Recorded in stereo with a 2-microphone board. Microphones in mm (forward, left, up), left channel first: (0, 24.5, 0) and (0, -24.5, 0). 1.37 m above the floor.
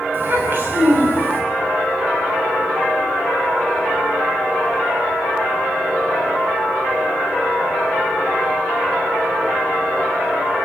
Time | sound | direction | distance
0.1 | a child speaking | 45° right (ahead or behind) | 7 m